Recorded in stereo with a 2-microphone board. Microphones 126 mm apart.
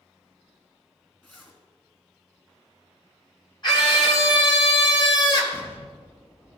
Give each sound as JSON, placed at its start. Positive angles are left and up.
{"t": 1.2, "sound": "a zipper", "side_deg": 15, "distance_m": 2.0}
{"t": 3.6, "sound": "a scream", "side_deg": 40, "distance_m": 3.5}
{"t": 5.5, "sound": "an explosion", "side_deg": 15, "distance_m": 1.6}